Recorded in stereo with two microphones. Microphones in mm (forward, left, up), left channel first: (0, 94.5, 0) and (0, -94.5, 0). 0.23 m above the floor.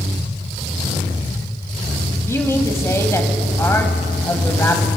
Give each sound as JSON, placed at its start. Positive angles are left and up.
{"t": 2.3, "sound": "a man speaking", "side_deg": 15, "distance_m": 1.1}